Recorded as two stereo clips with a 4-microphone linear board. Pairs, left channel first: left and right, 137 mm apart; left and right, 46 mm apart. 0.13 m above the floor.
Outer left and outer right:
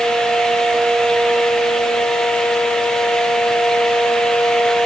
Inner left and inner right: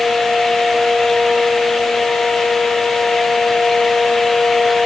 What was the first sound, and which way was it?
Only background noise.